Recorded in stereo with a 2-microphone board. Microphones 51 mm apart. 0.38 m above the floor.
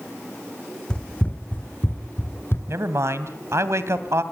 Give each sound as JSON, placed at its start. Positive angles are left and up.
{"t": 0.9, "sound": "running footsteps", "side_deg": 15, "distance_m": 1.2}
{"t": 2.7, "sound": "a man speaking", "side_deg": -60, "distance_m": 2.5}